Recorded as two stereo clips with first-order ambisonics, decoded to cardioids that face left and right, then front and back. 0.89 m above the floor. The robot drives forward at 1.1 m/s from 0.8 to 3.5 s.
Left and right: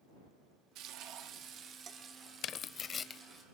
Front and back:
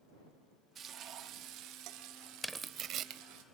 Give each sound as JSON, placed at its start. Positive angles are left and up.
{"t": 0.8, "sound": "frying", "azimuth_deg": -120, "distance_m": 1.3}
{"t": 2.4, "sound": "tearing paper", "azimuth_deg": 90, "distance_m": 0.7}